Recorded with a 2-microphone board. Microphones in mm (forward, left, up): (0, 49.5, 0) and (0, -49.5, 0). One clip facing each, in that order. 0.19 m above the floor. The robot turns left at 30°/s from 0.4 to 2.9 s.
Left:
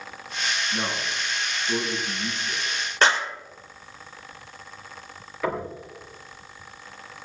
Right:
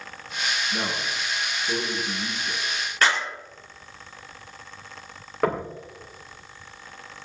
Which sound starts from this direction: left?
A clap, at 3.0 s.